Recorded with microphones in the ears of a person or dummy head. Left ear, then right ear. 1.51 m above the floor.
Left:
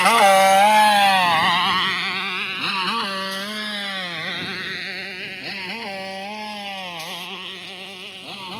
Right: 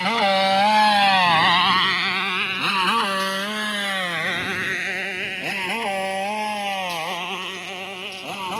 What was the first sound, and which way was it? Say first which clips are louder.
A motorcycle: left 6 dB; 45° left (ahead or behind).